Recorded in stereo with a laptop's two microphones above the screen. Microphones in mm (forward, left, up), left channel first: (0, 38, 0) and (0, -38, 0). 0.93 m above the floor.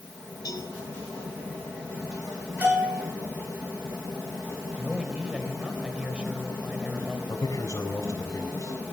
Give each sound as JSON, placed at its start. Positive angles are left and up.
{"t": 0.5, "sound": "a cowbell", "side_deg": 55, "distance_m": 6.0}
{"t": 2.6, "sound": "a bell", "side_deg": -25, "distance_m": 10.0}
{"t": 4.8, "sound": "a man speaking", "side_deg": -15, "distance_m": 4.0}
{"t": 7.3, "sound": "a man speaking", "side_deg": 45, "distance_m": 4.0}